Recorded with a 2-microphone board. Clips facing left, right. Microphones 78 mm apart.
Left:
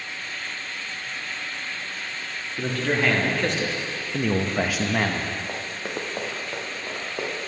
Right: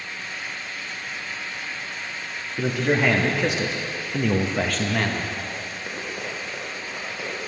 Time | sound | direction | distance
2.6 | a man speaking | 10° right (ahead or behind) | 1.6 m
5.5 | running footsteps | 70° left (ahead or behind) | 3 m